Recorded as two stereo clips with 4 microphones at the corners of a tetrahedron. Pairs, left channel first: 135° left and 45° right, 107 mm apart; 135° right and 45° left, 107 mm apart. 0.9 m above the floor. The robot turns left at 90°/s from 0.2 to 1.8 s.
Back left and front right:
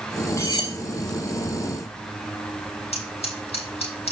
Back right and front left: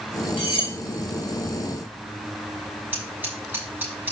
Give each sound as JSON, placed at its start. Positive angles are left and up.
{"t": 0.4, "sound": "cutlery clinking", "azimuth_deg": -160, "distance_m": 2.5}
{"t": 2.9, "sound": "scissors", "azimuth_deg": 115, "distance_m": 6.5}